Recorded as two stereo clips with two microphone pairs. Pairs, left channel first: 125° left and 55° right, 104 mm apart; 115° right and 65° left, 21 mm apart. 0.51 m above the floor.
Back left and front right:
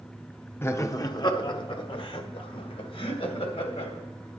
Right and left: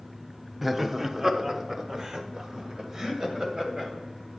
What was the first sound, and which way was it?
Laughter, 110° left.